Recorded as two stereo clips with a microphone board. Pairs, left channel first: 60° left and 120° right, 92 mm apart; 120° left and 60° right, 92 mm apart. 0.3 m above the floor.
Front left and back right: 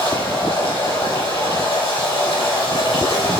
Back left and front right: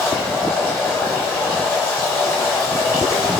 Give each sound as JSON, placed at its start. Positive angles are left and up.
{"t": 0.0, "sound": "running water", "azimuth_deg": 55, "distance_m": 3.5}